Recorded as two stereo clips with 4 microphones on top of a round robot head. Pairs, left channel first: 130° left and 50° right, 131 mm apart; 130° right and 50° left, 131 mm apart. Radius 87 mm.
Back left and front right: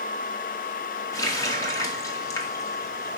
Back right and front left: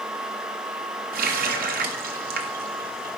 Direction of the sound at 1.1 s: 65° left.